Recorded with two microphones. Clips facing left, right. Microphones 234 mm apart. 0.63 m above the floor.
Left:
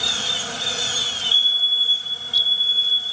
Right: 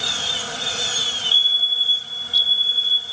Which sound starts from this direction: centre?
A fire alarm, at 1.3 s.